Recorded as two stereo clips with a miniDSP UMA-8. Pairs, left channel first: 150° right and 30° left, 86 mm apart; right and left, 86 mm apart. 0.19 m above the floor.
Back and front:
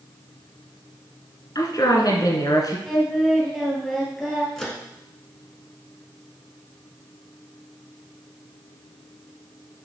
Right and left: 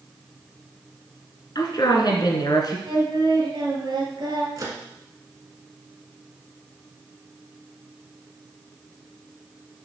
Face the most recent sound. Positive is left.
turn(degrees=125)